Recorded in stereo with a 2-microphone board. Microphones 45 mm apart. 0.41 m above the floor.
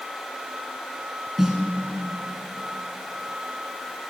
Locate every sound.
1.4 s a snare drum: 10° right (ahead or behind), 1.7 m